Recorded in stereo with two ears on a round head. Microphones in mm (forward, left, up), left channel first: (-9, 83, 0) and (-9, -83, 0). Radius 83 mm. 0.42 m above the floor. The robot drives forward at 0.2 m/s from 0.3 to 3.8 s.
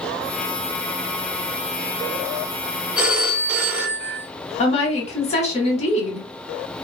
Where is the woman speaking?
35° left (ahead or behind), 1.0 m.